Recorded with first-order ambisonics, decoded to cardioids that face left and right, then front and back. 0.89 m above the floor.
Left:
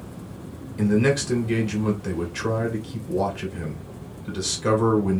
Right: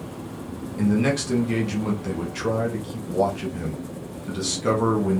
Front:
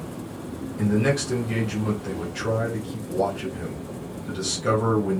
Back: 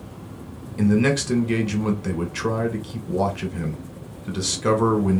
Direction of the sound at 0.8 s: 170° left.